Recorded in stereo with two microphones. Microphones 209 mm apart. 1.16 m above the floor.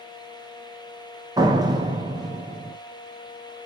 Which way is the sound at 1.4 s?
20° right (ahead or behind).